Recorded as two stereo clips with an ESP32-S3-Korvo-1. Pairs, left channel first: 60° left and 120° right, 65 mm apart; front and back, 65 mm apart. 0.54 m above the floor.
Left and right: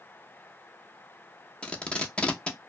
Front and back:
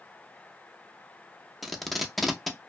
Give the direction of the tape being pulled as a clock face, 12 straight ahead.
9 o'clock.